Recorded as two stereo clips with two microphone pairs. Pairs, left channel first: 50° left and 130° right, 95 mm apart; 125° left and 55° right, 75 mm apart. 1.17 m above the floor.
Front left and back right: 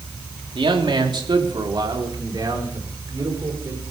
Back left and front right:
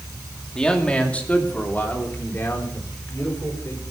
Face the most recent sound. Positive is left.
turn(degrees=175)